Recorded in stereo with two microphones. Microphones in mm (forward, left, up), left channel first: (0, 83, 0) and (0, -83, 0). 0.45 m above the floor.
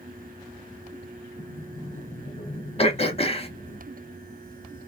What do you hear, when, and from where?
1.4 s a sliding door: 50° left (ahead or behind), 1.2 m
2.8 s throat clearing: 35° left (ahead or behind), 0.6 m